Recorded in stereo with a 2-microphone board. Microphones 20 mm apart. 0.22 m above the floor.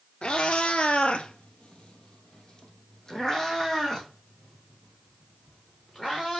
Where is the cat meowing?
65° left (ahead or behind), 0.9 m; by 6.4 s 15° left (ahead or behind), 4 m.